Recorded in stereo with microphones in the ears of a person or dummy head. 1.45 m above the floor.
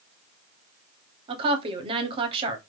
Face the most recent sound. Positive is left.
turn(degrees=-25)  # may be behind; listen again after turning